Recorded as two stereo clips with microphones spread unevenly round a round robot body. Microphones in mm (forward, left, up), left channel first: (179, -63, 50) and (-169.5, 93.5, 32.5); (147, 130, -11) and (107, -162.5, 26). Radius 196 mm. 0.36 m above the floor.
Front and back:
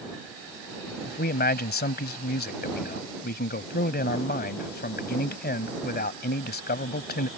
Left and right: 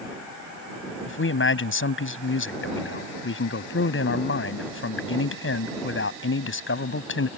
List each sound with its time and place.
1.1 s a man speaking: 40° left